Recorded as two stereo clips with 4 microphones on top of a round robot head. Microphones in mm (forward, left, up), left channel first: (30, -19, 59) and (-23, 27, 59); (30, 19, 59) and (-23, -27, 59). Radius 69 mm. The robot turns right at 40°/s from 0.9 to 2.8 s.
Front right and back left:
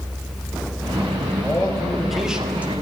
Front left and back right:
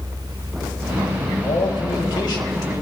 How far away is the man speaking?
About 3.5 m.